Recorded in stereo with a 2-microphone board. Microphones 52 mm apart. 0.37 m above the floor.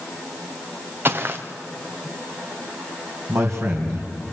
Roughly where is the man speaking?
Right.